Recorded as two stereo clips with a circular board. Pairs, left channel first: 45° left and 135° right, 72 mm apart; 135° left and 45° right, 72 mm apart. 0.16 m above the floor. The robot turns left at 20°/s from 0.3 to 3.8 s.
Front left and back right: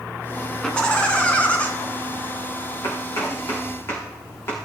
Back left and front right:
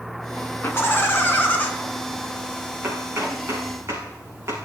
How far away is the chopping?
About 6.5 m.